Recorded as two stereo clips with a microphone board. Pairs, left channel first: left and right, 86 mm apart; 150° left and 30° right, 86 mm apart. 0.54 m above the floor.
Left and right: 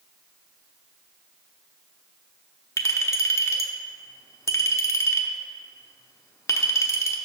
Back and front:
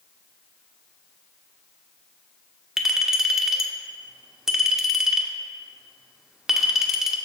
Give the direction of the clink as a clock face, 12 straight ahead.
10 o'clock.